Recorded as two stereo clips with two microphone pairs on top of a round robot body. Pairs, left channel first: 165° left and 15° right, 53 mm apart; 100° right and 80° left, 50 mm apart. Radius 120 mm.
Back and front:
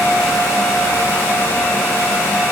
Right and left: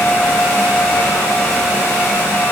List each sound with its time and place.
Only background noise.